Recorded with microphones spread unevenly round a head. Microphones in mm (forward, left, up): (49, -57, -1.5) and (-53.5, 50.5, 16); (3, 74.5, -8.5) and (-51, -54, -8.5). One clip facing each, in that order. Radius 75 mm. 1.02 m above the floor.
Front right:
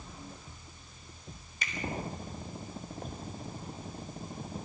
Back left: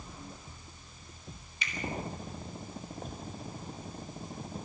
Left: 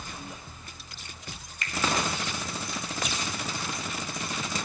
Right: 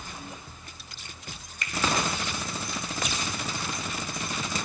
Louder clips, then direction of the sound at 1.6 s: Front right 1 dB, even; 95° right.